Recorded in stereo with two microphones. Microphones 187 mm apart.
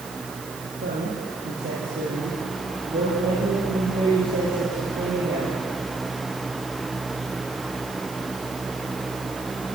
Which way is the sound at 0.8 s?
75° right (ahead or behind).